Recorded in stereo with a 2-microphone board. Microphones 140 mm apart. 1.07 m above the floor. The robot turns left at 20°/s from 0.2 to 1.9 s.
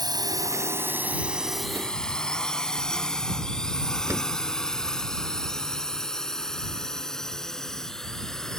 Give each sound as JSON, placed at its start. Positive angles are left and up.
{"t": 0.0, "sound": "a drone", "side_deg": -30}
{"t": 4.1, "sound": "a door slam", "side_deg": -20}